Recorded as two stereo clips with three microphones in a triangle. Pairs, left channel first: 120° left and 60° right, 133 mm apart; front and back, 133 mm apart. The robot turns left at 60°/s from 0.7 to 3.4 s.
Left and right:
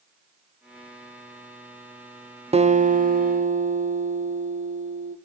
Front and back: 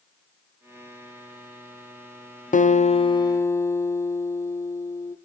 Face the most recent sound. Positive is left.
turn(degrees=-70)